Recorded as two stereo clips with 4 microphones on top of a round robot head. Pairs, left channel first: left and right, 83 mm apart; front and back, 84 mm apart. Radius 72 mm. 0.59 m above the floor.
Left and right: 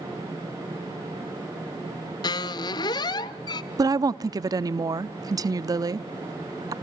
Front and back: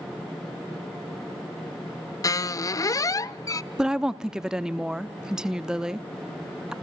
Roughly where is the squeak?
Ahead left.